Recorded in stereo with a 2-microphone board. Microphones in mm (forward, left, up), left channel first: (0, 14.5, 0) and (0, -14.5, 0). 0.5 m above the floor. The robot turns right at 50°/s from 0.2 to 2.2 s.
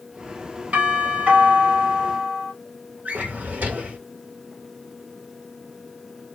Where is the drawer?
70° right (ahead or behind), 1.1 m.